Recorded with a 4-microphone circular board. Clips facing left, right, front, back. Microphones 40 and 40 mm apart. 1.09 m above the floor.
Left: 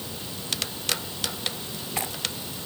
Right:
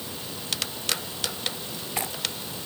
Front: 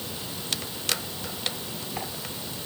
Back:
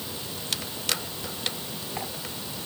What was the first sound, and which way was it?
Only background noise.